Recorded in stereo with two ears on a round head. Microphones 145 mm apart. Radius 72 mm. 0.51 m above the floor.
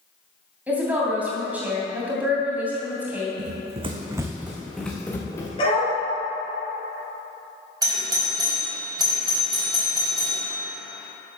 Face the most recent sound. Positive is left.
turn(degrees=-25)  # may be behind; listen again after turning